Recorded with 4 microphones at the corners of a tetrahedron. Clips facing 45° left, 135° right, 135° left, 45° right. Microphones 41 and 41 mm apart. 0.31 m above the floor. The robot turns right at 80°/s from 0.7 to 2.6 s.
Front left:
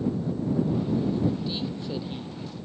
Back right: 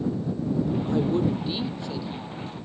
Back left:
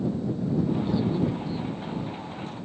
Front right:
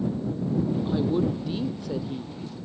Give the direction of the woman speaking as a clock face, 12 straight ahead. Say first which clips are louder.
Back right 2 dB, front right 1 dB; 4 o'clock.